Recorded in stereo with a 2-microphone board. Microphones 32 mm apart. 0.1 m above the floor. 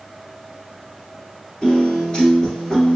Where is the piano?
25° left (ahead or behind), 1.6 m.